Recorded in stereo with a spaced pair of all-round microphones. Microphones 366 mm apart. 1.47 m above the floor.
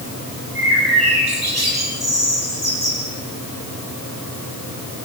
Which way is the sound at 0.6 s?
80° right.